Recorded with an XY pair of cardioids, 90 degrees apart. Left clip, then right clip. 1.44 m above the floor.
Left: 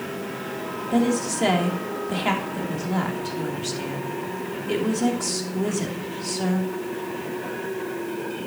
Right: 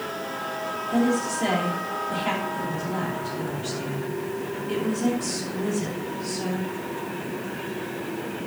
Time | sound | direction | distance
0.9 | a woman speaking | 45° left | 3 m